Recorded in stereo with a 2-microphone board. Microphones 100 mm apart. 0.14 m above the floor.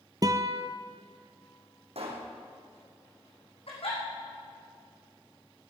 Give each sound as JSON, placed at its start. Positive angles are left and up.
{"t": 0.2, "sound": "a guitar", "side_deg": -40, "distance_m": 0.8}
{"t": 1.9, "sound": "a pop", "side_deg": -80, "distance_m": 3.5}
{"t": 3.7, "sound": "a giggle", "side_deg": 70, "distance_m": 4.5}